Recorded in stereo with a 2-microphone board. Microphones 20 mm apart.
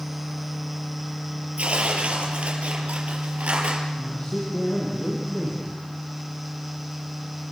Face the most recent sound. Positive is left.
turn(degrees=45)  # may be behind; listen again after turning